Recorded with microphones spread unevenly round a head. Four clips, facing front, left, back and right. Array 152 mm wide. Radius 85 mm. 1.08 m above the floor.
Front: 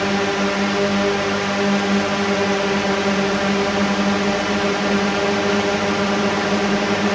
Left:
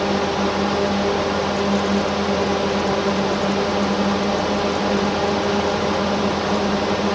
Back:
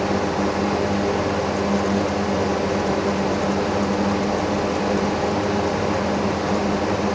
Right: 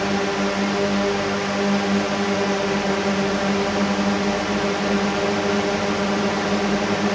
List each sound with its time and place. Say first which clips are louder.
0.0 s a drone: left 2 dB, front 1 dB; 10° left